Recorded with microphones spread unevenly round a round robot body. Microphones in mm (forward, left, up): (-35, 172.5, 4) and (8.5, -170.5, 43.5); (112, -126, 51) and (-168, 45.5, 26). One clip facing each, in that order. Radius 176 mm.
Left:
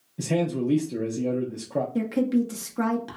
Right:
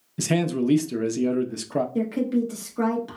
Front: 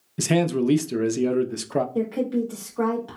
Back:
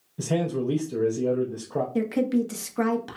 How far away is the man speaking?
About 0.5 m.